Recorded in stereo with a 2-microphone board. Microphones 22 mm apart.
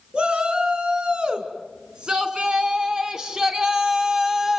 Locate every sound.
0.1 s a shout: 45° right (ahead or behind), 4.5 m; by 4.6 s 15° right (ahead or behind), 3 m